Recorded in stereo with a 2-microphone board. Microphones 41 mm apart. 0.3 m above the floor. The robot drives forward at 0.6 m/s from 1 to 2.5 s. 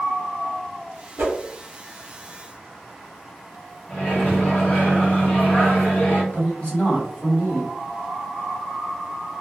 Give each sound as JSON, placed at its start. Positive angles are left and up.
{"t": 1.2, "sound": "a whoosh", "side_deg": -55, "distance_m": 0.9}
{"t": 3.9, "sound": "a microwave", "side_deg": 40, "distance_m": 1.6}
{"t": 6.3, "sound": "a man speaking", "side_deg": 25, "distance_m": 1.5}